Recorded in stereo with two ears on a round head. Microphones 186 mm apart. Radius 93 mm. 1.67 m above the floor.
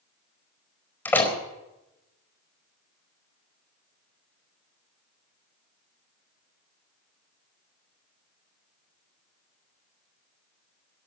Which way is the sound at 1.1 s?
10° left (ahead or behind).